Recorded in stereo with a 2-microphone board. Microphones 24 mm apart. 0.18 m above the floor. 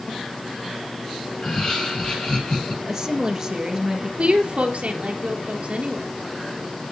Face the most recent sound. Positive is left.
turn(degrees=-45)  # may be behind; listen again after turning